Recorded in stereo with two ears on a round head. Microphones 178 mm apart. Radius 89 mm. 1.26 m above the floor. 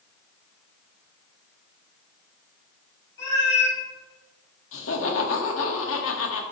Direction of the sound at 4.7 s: 80° left.